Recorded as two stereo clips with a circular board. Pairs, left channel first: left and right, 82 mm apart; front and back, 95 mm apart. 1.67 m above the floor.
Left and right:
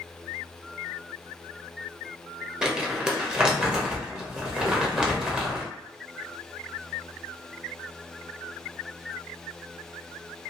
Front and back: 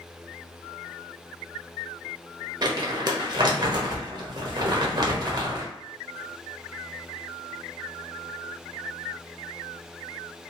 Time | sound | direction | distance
2.6 | crumpling | 165° right | 0.7 m